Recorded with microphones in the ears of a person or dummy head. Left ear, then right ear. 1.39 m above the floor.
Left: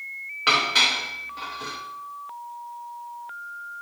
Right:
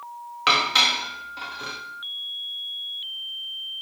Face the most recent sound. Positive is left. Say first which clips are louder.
# right 1 dB
turn(degrees=-15)  # may be behind; listen again after turning